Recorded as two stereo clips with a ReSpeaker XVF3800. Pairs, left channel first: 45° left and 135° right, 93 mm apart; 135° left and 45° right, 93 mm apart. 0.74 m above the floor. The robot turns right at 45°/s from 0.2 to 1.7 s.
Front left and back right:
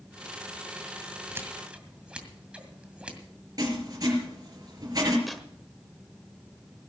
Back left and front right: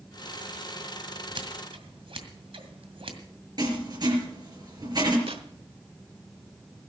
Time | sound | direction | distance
1.4 | scissors | 75° right | 2.0 m
3.6 | writing | 90° right | 4.5 m
5.3 | tearing paper | 45° right | 1.3 m